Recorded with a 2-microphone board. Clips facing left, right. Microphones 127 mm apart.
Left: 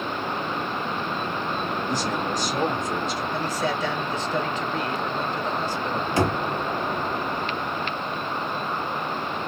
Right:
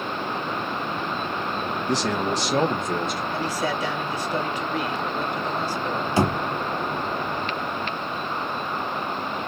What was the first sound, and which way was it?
A man speaking, 80° right.